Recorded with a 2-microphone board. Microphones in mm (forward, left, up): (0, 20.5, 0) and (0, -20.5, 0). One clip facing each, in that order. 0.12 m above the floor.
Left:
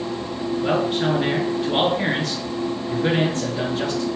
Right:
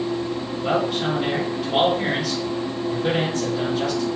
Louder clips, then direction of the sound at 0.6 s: Left 1 dB; 35° left (ahead or behind).